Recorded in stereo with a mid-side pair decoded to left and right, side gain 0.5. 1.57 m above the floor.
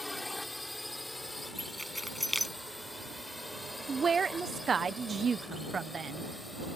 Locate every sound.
0.0 s a drone: 10° left
1.6 s keys jangling: 5° right
3.9 s a woman speaking: 35° right